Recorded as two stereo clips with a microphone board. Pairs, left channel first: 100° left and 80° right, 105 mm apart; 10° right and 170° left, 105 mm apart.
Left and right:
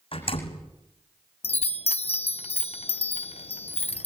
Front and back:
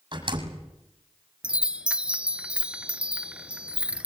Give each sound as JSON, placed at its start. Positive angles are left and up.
{"t": 0.1, "sound": "a door slam", "azimuth_deg": 125, "distance_m": 6.5}
{"t": 1.4, "sound": "a chime", "azimuth_deg": 90, "distance_m": 0.7}